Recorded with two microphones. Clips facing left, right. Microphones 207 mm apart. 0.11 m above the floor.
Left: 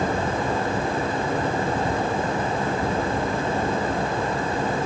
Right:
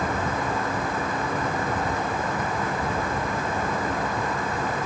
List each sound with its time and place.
Only background noise.